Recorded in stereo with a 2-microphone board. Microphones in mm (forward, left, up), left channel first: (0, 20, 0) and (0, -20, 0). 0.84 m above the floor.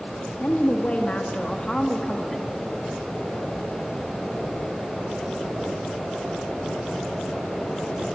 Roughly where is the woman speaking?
Left.